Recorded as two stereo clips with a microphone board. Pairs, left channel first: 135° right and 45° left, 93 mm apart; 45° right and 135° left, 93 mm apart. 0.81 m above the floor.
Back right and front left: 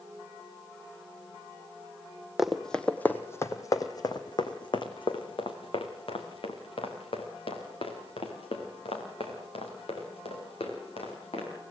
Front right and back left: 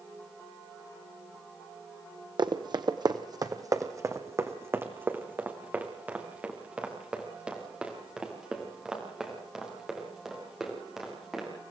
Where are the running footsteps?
130° left, 1.3 m; by 11.5 s 140° right, 6.5 m.